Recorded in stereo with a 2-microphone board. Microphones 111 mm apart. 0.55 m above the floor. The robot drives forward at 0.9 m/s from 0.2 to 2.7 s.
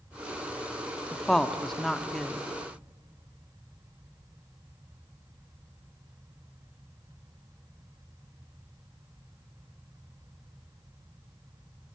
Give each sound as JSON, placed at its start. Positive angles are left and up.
{"t": 1.1, "sound": "a woman speaking", "side_deg": 5, "distance_m": 0.7}